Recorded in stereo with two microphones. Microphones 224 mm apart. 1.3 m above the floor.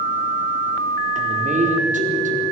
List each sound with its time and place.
1.1 s a man speaking: 35° right (ahead or behind), 4 m